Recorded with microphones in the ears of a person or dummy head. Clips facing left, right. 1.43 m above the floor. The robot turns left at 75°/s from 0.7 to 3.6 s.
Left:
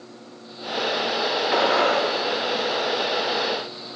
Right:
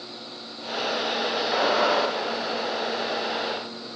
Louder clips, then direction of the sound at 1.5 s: Left 2 dB; 120° left.